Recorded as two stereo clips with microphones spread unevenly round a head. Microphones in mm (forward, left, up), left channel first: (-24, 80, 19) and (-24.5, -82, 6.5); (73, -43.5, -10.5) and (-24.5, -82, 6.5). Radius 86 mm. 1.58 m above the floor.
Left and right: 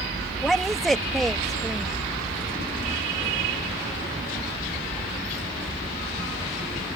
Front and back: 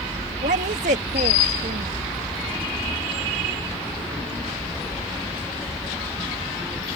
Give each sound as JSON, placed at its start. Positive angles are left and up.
{"t": 0.4, "sound": "a woman speaking", "azimuth_deg": 180}